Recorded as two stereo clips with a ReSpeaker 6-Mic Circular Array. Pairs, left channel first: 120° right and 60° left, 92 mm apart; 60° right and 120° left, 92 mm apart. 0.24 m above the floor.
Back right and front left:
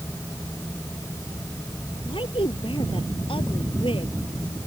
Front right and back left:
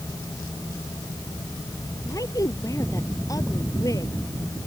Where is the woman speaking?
110° right.